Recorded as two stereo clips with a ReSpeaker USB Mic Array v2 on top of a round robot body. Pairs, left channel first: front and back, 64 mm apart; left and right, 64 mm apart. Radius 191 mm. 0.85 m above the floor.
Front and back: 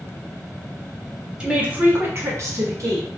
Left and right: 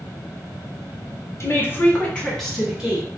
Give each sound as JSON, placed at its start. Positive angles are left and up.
{"t": 1.4, "sound": "a woman speaking", "azimuth_deg": 105, "distance_m": 1.1}